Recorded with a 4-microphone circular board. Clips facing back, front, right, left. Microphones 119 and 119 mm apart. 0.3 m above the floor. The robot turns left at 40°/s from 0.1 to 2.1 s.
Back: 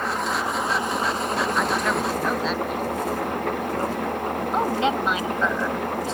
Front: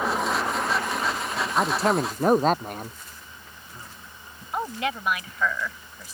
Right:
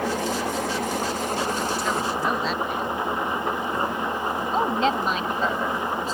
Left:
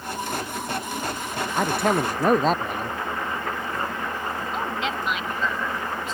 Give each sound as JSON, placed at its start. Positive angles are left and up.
{"t": 0.0, "sound": "an engine running", "azimuth_deg": -80}
{"t": 1.6, "sound": "a man speaking", "azimuth_deg": 65}
{"t": 4.5, "sound": "a woman speaking", "azimuth_deg": -125}